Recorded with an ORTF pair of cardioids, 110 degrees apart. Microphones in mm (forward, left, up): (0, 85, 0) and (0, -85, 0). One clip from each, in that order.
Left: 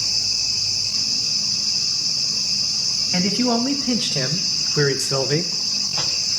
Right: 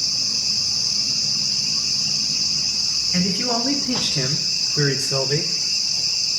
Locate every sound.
3.1 s a man speaking: 65° left, 1.7 m; by 5.5 s 25° left, 0.6 m